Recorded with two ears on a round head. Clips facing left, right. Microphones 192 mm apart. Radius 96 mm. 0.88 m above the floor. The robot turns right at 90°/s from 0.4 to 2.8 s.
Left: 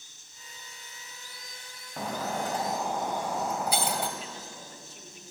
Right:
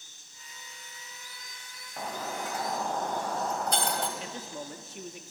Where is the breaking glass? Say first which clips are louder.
Left 4 dB; 95° left, 1.7 m; by 4.1 s 175° left, 1.7 m.